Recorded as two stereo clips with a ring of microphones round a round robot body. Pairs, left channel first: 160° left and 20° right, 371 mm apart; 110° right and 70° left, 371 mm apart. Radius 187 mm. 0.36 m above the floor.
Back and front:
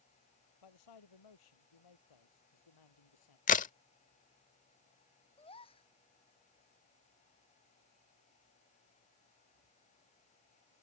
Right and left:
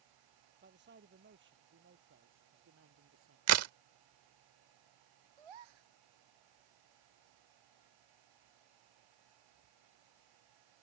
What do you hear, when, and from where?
0.6 s a man speaking: 130° left; by 3.4 s 125° left
3.5 s a crack: 95° left
5.4 s a gasp: 80° left